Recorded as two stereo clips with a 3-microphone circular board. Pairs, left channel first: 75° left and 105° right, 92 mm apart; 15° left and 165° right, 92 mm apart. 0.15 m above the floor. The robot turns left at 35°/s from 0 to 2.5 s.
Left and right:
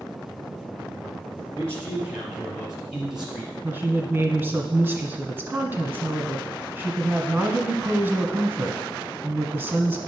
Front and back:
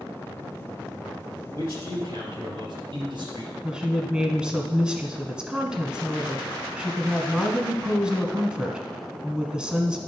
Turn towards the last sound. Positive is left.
turn(degrees=-100)